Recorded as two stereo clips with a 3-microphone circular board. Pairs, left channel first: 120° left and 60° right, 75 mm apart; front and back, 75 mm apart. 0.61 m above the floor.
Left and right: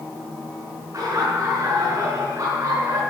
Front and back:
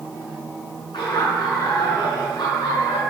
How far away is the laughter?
About 8 m.